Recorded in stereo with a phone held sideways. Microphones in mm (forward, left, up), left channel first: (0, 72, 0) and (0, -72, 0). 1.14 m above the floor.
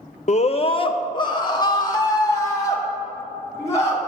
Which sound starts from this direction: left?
A scream, at 0.3 s.